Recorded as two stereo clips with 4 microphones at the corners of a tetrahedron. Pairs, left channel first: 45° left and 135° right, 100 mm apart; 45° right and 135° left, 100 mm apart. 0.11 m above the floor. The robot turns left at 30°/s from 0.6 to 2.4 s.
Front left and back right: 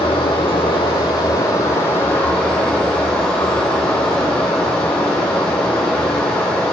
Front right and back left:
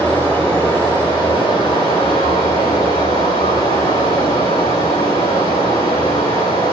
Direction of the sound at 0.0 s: 15° left.